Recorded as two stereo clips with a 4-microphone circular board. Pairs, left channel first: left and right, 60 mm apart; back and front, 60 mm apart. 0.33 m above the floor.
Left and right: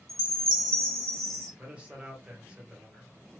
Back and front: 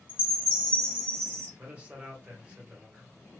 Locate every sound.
0.1 s a chime: 150° left, 1.4 m
1.6 s a man speaking: 45° right, 1.2 m